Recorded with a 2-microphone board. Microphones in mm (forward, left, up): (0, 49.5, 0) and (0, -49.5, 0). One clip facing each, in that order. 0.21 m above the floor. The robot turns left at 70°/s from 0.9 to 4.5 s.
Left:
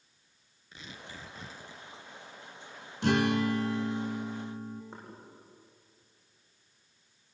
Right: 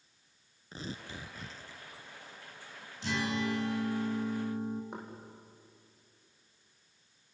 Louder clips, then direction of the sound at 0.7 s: Right 5 dB; 145° right.